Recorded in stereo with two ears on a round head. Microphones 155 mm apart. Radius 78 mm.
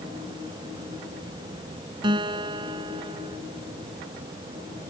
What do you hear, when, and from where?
2.0 s a guitar: 30° right (ahead or behind)